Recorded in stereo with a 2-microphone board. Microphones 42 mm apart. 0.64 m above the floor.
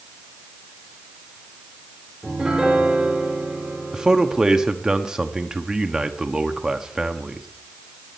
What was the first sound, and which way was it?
A piano, 10° right (ahead or behind).